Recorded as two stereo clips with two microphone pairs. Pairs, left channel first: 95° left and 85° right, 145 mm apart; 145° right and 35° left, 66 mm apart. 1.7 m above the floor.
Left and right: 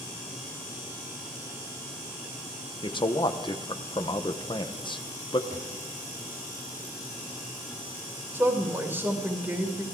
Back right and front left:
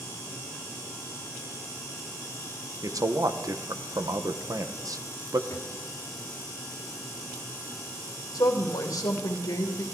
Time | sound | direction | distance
2.8 | a man speaking | 45° left | 1.1 m
5.5 | a drawer | 105° right | 3.5 m
8.3 | a woman speaking | 155° right | 2.5 m